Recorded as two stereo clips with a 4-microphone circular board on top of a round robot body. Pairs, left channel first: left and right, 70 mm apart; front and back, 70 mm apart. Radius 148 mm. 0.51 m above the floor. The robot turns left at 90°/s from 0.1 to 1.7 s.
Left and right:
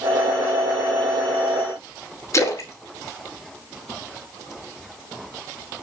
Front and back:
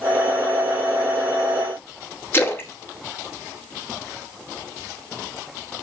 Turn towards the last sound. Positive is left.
turn(degrees=55)